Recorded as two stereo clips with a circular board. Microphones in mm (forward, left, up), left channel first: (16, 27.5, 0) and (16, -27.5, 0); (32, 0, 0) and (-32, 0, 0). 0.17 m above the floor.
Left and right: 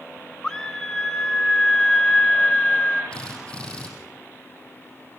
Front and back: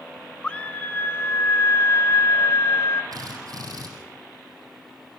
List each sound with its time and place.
0.4 s a scream: 40° left, 1.1 m; by 3.0 s 10° left, 2.5 m
3.1 s a drill: 160° left, 5.5 m